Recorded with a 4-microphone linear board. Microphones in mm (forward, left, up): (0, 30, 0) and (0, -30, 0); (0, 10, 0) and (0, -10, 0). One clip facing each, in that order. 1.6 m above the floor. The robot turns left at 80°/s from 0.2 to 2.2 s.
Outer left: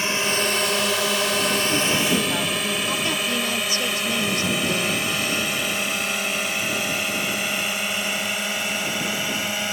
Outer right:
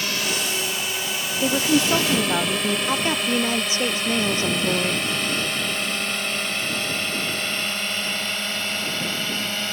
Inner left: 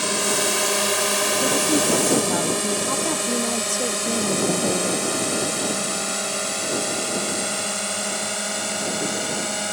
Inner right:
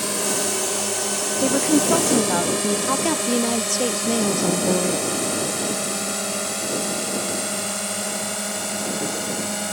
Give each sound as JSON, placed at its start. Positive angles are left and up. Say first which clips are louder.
{"t": 0.0, "sound": "a drone", "louder": "outer left 3 dB, inner left 2 dB", "side_deg": 20}
{"t": 1.4, "sound": "a woman speaking", "louder": "outer right 2 dB, inner right 5 dB", "azimuth_deg": -90}
{"t": 2.9, "sound": "a woman speaking", "louder": "outer right 2 dB, inner right 2 dB", "side_deg": -25}